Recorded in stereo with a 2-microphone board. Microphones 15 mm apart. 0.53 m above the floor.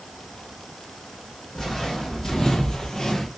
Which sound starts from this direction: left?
Footsteps, at 1.6 s.